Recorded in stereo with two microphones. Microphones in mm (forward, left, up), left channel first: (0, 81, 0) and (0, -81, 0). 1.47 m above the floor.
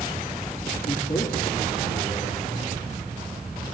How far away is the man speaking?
About 2.5 m.